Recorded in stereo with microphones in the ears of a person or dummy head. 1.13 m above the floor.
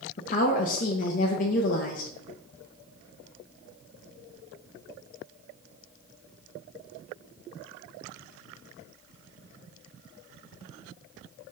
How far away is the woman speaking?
About 0.8 m.